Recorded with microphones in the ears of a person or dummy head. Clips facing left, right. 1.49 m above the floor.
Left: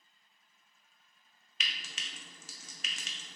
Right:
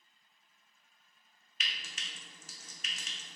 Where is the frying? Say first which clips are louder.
Left 1 dB; 65° left (ahead or behind), 0.6 m.